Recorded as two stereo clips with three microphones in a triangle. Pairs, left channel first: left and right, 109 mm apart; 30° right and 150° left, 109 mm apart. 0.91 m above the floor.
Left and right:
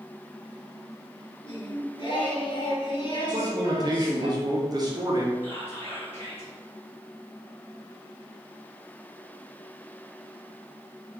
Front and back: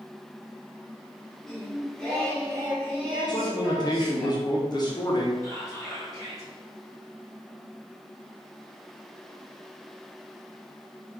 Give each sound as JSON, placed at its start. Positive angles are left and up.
{"t": 1.4, "sound": "singing", "azimuth_deg": 55, "distance_m": 1.3}
{"t": 3.3, "sound": "a man speaking", "azimuth_deg": -60, "distance_m": 0.7}
{"t": 5.4, "sound": "whispering", "azimuth_deg": 25, "distance_m": 1.9}